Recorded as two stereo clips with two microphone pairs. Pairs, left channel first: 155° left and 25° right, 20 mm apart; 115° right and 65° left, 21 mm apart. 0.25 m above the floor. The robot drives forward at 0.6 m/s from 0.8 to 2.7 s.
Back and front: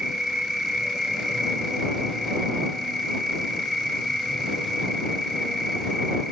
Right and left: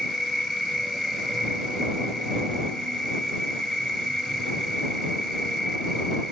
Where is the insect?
25° right, 1.6 m; by 6.3 s 140° right, 1.4 m.